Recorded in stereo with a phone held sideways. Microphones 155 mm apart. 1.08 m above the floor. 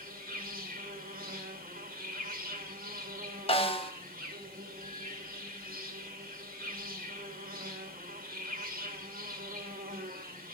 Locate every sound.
0.0 s an insect: 65° right (ahead or behind), 1.3 m
3.5 s a snare drum: 35° left (ahead or behind), 0.6 m